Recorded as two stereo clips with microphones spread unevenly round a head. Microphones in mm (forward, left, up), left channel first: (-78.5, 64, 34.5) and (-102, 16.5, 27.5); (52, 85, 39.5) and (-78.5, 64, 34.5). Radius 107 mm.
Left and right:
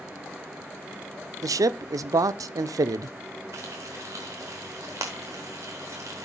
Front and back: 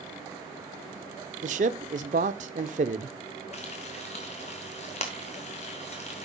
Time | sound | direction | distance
1.4 | a man speaking | 120° right | 0.5 m
3.5 | frying | 50° right | 0.9 m